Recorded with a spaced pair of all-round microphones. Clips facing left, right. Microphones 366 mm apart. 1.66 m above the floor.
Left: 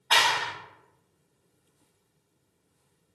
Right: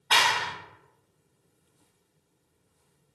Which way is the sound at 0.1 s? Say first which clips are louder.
Even; 35° right (ahead or behind).